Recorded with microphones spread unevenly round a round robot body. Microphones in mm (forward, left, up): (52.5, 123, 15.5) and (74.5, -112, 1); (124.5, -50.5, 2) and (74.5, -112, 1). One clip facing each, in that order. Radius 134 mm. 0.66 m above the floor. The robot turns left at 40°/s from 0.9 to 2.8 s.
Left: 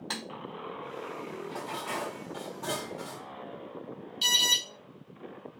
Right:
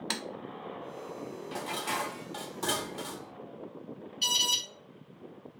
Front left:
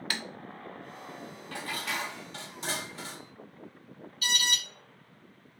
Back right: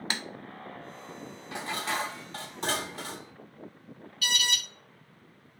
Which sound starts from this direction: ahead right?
Dishes clattering, at 1.5 s.